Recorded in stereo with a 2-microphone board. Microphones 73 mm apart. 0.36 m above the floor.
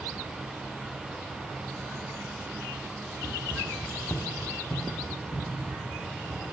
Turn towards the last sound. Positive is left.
turn(degrees=70)  # may be behind; listen again after turning